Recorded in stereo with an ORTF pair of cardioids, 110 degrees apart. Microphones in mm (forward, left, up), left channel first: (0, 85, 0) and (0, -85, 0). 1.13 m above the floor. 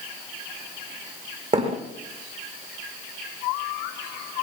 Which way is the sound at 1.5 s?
45° right.